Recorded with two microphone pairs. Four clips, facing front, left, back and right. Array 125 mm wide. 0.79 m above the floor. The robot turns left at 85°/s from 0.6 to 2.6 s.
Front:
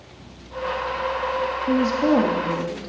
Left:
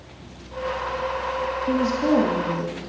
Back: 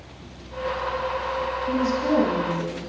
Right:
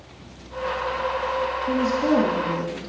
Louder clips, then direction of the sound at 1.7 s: Left 1 dB, front 4 dB; 40° left.